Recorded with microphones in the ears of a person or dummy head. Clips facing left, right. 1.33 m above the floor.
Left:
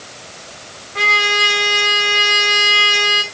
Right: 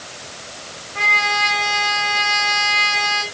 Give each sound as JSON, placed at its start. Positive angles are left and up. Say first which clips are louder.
{"t": 0.9, "sound": "a trumpet", "louder": "left 3 dB", "side_deg": 50, "distance_m": 1.4}